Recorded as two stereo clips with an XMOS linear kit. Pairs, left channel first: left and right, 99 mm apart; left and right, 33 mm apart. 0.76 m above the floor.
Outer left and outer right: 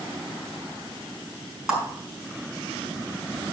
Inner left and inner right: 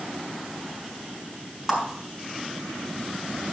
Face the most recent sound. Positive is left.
turn(degrees=-5)  # may be behind; listen again after turning